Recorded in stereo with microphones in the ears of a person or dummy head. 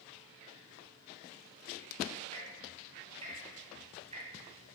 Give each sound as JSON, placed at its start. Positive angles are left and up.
{"t": 2.3, "sound": "ticking", "side_deg": -30, "distance_m": 4.5}